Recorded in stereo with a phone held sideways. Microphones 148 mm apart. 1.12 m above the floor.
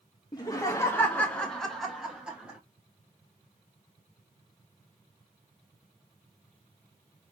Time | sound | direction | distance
0.3 | laughter | 25° left (ahead or behind) | 0.7 m